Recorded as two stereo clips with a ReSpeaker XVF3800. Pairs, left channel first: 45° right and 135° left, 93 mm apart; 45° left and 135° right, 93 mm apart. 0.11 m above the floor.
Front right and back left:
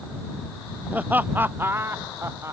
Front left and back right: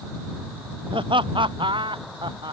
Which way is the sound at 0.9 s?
155° right.